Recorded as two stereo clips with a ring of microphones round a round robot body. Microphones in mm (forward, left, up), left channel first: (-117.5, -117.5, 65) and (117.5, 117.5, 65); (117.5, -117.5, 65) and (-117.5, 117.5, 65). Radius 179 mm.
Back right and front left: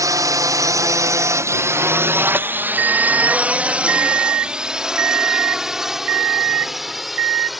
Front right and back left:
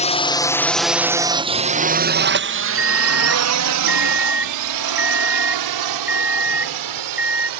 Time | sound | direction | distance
0.0 | a drone | 20° right | ?
2.8 | an alarm clock | 50° left | ?